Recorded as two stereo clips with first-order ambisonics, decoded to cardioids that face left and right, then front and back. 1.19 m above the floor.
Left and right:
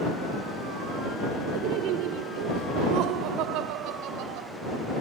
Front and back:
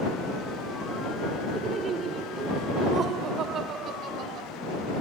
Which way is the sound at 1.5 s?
110° right.